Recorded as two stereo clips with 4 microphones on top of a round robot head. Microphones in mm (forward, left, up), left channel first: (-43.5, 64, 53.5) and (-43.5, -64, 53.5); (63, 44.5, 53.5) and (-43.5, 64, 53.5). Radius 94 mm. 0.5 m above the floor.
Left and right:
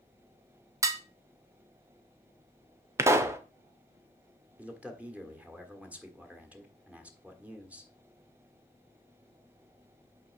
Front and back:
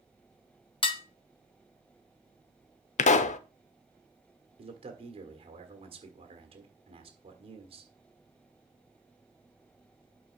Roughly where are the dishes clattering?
Ahead right.